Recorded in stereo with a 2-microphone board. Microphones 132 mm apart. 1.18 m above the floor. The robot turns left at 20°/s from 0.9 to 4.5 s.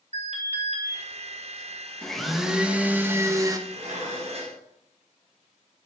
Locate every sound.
0.1 s an alarm: 55° right (ahead or behind), 4 m
2.0 s a blender: 5° left, 1.1 m; by 3.6 s 25° right, 1.1 m
3.7 s dishes clattering: 65° right (ahead or behind), 4.5 m; by 4.6 s 50° right (ahead or behind), 4.5 m